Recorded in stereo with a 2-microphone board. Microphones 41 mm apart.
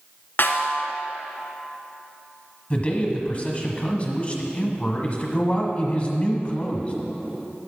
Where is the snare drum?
60° left (ahead or behind), 0.8 m.